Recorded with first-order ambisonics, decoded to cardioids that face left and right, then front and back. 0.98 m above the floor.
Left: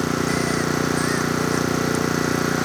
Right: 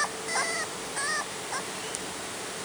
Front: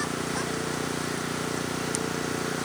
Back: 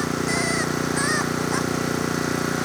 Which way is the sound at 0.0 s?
110° left.